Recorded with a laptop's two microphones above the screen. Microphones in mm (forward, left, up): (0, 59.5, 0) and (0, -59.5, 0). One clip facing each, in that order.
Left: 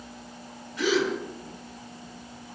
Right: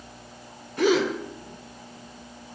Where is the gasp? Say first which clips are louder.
Right 4 dB; 50° right (ahead or behind), 1.0 m.